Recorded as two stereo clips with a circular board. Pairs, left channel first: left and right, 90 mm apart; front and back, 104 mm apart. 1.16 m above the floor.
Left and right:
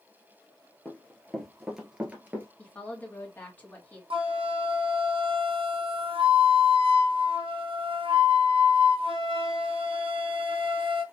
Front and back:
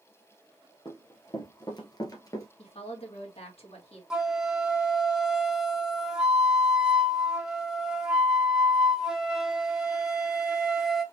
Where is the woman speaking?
20° left, 2 m.